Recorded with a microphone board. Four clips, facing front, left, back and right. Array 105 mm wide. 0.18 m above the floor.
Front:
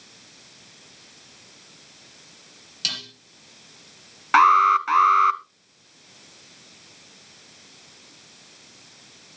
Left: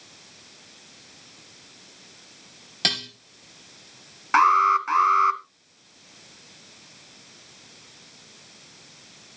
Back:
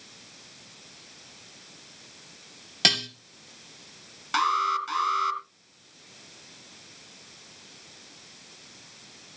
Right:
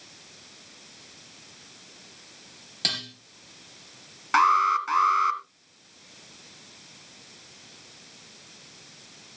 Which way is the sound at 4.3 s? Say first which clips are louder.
Left 3 dB, front 10 dB; 10° left.